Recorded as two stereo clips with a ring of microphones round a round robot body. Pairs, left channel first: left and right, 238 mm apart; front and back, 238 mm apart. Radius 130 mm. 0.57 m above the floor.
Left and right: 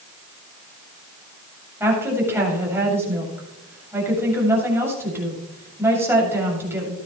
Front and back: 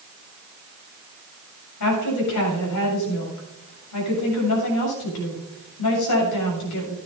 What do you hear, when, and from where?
1.8 s a woman speaking: 10° right, 7 m